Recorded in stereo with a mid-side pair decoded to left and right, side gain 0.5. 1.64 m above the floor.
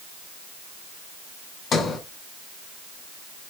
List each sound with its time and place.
1.7 s a sliding door: 50° left, 4 m